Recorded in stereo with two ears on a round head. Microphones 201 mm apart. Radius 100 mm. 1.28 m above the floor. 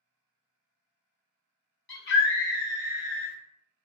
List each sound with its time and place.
1.9 s a scream: 50° left (ahead or behind), 1.2 m